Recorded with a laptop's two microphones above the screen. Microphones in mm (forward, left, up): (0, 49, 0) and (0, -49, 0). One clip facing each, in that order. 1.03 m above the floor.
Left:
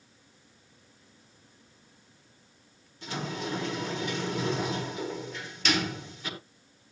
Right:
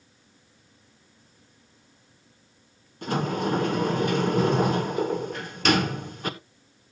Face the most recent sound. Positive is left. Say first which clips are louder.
# right 9 dB
turn(degrees=-50)  # may be behind; listen again after turning